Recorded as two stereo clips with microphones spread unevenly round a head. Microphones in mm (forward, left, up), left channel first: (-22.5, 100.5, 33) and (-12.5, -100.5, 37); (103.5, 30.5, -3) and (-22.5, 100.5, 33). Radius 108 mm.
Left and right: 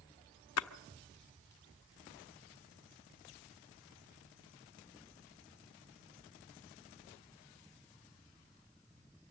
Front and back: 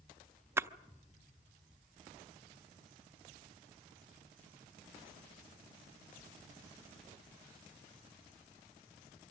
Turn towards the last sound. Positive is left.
turn(degrees=75)